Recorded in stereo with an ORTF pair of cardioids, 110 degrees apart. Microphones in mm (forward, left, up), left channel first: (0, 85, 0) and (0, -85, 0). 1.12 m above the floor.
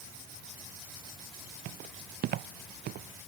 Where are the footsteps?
65° right; by 3.3 s 70° right.